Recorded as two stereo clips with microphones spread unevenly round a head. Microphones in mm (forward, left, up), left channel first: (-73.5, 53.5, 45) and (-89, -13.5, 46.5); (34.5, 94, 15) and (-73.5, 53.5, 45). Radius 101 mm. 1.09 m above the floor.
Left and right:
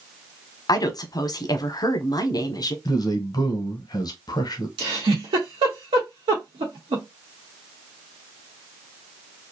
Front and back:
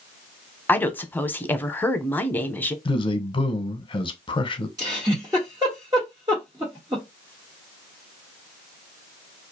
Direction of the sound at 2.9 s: 55° left.